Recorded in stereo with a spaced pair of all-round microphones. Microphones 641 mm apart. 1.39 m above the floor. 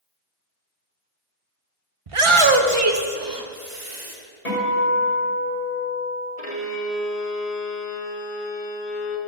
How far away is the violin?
About 1.5 m.